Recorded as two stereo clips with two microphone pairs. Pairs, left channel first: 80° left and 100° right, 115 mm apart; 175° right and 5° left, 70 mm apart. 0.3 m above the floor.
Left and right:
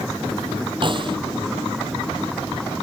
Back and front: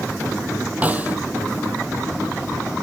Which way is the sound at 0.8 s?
60° right.